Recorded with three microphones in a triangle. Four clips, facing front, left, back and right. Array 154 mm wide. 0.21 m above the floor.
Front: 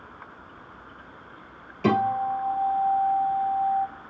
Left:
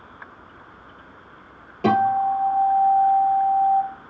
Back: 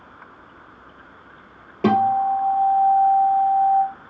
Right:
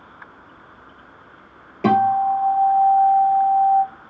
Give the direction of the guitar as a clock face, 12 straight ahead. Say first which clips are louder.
Right 2 dB, back 5 dB; 6 o'clock.